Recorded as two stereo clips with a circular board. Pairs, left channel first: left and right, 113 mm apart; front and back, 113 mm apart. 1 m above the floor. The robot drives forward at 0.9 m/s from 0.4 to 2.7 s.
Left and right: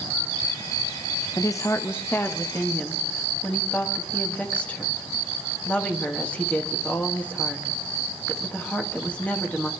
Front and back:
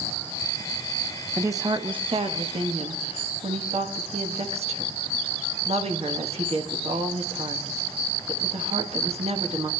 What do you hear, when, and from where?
1.4 s a woman speaking: 120° left, 0.7 m; by 9.7 s 165° left, 1.6 m